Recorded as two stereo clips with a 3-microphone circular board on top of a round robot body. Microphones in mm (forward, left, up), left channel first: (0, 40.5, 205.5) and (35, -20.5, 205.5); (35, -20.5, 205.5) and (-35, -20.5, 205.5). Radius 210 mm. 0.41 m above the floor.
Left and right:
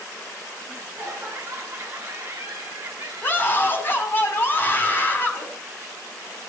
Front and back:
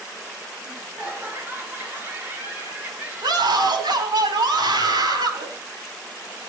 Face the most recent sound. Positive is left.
turn(degrees=180)